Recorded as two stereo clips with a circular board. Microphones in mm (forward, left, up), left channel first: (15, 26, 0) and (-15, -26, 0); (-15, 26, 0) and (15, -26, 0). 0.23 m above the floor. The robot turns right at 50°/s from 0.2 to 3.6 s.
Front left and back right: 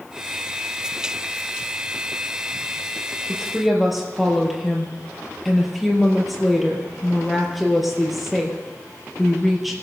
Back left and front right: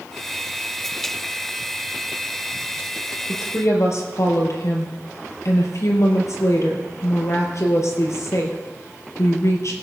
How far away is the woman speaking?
About 4.5 m.